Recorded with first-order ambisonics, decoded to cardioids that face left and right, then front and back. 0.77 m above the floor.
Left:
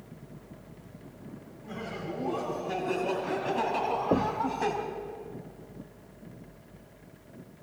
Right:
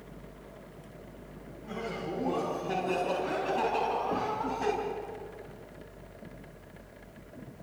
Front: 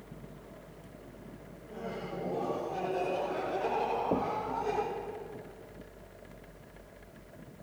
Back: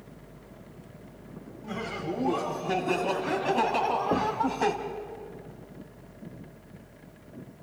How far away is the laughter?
About 6 m.